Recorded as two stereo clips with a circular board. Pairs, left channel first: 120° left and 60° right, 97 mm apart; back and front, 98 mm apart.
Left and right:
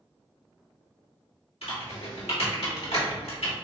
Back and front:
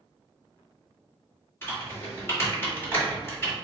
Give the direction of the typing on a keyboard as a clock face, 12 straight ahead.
8 o'clock.